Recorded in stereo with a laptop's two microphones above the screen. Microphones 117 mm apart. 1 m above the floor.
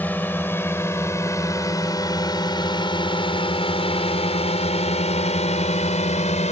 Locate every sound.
0.0 s a drone: 15° left (ahead or behind); by 6.5 s 75° left (ahead or behind)